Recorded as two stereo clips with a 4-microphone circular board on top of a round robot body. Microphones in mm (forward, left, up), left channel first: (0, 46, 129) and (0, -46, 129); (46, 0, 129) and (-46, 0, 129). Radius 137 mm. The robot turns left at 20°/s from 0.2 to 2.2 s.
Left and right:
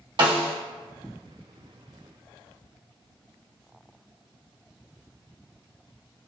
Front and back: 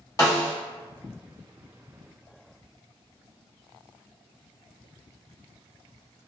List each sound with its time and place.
0.2 s a snare drum: 55° right, 1.4 m; by 0.5 s 60° right, 1.4 m